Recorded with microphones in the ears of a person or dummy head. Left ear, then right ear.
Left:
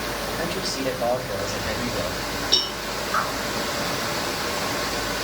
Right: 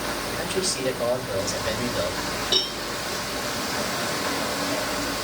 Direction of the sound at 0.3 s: 85° right.